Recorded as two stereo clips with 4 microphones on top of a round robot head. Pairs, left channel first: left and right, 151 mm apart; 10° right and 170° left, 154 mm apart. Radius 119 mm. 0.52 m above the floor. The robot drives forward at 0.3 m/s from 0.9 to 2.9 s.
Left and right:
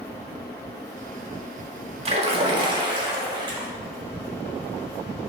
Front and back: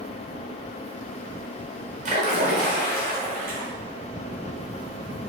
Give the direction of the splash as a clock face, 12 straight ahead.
5 o'clock.